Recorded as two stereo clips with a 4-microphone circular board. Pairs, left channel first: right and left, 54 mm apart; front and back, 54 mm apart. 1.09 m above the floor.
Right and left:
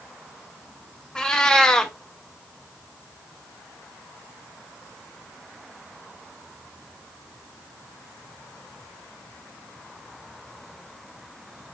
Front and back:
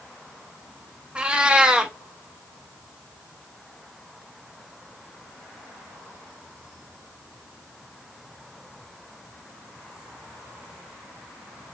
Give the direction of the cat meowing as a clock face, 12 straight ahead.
5 o'clock.